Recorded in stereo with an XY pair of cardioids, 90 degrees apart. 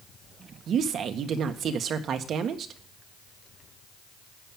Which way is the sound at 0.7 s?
70° right.